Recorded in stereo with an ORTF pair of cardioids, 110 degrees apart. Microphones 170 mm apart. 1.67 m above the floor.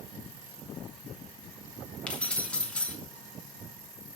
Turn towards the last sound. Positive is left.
turn(degrees=5)